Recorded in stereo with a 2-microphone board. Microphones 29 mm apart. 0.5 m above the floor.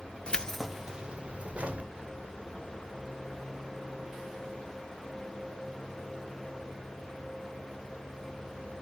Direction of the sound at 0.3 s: 35° left (ahead or behind).